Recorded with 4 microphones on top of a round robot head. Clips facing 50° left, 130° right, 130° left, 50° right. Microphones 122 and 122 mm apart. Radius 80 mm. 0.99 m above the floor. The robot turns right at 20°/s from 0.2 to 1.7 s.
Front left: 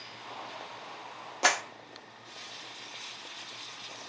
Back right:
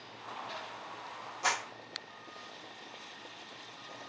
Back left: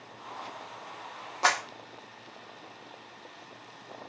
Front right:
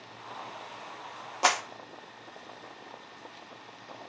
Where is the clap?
30° left, 1.6 m.